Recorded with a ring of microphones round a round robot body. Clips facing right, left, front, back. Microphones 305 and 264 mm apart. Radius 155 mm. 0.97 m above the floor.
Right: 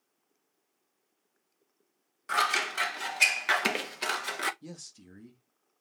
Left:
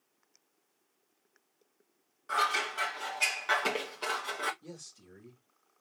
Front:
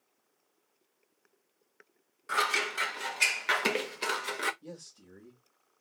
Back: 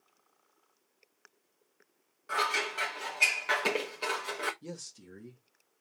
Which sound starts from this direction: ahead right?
Scissors, at 2.3 s.